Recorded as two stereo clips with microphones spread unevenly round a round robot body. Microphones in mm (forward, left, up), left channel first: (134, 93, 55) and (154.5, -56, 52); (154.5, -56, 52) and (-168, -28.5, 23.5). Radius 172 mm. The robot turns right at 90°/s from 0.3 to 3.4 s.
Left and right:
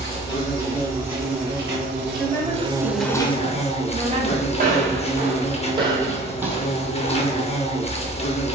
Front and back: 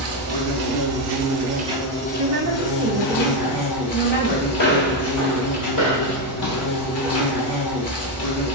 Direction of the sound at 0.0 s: 125° left.